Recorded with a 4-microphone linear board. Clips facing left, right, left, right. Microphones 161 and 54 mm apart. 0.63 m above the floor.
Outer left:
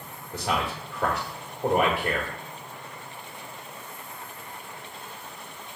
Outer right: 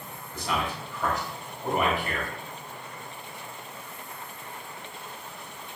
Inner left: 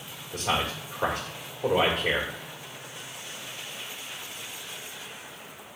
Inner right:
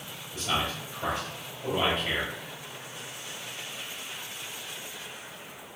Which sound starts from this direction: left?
A man speaking, at 0.3 s.